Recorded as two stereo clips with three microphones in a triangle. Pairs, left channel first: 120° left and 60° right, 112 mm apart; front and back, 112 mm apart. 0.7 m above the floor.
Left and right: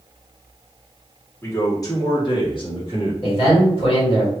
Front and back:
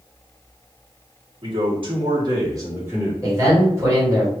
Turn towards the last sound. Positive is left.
turn(degrees=125)